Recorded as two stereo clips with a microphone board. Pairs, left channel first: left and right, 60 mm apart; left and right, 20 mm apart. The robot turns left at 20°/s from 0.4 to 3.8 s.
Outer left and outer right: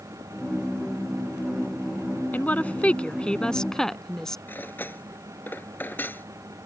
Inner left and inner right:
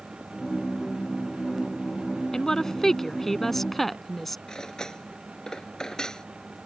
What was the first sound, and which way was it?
A woman speaking, 30° left (ahead or behind).